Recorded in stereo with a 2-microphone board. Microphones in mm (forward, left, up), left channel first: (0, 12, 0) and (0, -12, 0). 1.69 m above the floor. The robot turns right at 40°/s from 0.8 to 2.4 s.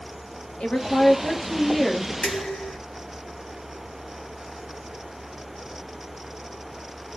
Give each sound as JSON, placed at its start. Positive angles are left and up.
{"t": 0.6, "sound": "a woman speaking", "azimuth_deg": 125, "distance_m": 0.9}
{"t": 2.2, "sound": "dishes clattering", "side_deg": 55, "distance_m": 1.3}